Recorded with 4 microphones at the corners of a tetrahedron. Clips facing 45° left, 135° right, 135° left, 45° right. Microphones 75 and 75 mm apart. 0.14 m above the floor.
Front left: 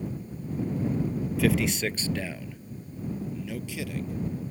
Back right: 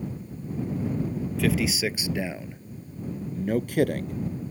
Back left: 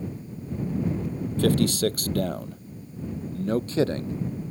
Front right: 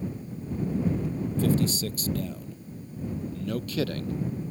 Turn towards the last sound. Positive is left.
turn(degrees=-160)